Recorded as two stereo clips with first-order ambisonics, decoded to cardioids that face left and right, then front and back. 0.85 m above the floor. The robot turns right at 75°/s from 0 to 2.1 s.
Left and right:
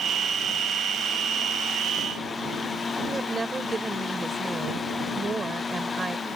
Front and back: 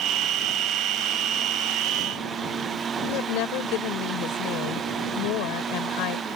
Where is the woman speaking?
15° right.